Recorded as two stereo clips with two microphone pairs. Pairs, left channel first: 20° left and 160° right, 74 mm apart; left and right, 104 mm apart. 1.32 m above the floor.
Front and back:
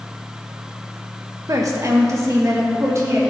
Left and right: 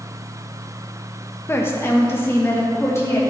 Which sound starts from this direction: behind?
A woman speaking, at 1.5 s.